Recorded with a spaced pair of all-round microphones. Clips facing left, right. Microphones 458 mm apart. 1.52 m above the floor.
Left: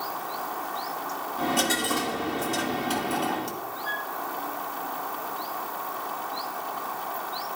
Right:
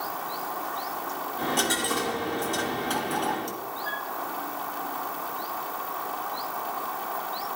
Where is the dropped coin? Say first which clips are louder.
Left 2 dB; 45° left (ahead or behind), 1.6 m.